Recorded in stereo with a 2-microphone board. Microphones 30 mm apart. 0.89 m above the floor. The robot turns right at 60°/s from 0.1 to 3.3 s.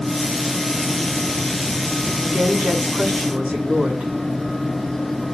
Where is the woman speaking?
115° right, 6 m; by 4.1 s 50° right, 6 m.